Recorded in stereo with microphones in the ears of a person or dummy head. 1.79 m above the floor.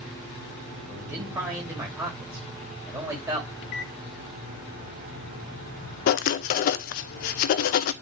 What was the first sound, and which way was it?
A man speaking, 10° right (ahead or behind).